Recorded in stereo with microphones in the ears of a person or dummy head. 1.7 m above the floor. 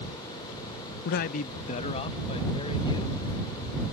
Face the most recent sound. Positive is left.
turn(degrees=25)  # may be behind; listen again after turning